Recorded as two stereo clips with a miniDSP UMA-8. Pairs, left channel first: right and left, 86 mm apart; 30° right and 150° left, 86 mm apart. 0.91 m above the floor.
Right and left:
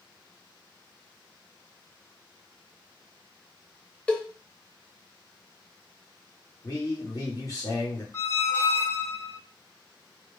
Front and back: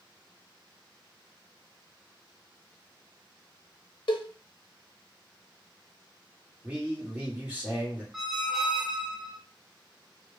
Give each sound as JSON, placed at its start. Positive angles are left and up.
{"t": 4.1, "sound": "a cowbell", "azimuth_deg": -15, "distance_m": 0.6}
{"t": 6.6, "sound": "a man speaking", "azimuth_deg": -140, "distance_m": 1.7}
{"t": 8.1, "sound": "a squeak", "azimuth_deg": -125, "distance_m": 0.5}